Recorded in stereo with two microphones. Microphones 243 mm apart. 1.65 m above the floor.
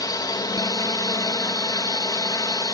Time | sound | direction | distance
0.0 | a drone | 15° left (ahead or behind) | ?